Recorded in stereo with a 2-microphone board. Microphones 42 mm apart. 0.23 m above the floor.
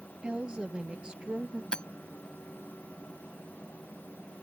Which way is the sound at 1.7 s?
20° left (ahead or behind).